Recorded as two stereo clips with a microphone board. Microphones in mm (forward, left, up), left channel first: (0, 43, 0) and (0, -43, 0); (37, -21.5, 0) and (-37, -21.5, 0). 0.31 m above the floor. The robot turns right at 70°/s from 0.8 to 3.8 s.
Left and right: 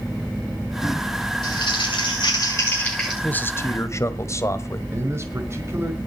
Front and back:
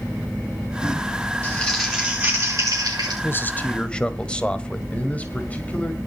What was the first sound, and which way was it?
Crumpling, 65° left.